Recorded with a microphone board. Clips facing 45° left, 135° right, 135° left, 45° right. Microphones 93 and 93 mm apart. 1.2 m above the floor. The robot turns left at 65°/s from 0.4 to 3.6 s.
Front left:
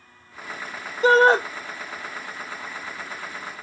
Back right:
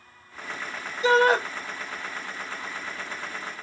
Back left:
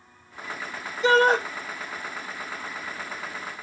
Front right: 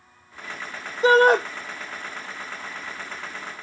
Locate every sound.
1.0 s a shout: straight ahead, 0.8 m; by 1.4 s 25° right, 0.8 m